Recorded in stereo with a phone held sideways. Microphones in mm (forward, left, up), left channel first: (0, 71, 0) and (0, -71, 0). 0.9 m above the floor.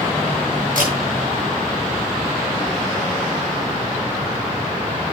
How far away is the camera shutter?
About 6 m.